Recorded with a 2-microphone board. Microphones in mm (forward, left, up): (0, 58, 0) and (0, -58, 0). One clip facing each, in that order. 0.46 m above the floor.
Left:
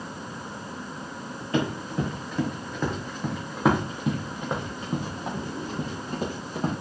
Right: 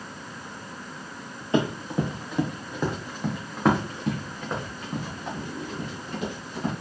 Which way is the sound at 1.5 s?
25° right (ahead or behind).